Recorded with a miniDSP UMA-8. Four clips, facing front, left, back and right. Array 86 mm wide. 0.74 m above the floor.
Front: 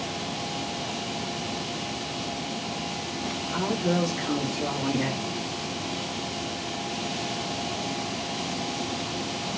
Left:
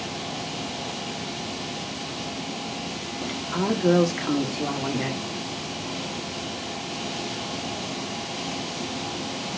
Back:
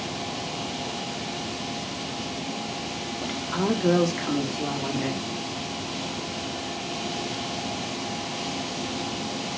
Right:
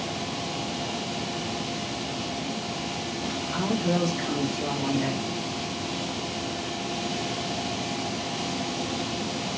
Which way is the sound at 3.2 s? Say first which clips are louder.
Left 4 dB, back 3 dB; 160° left.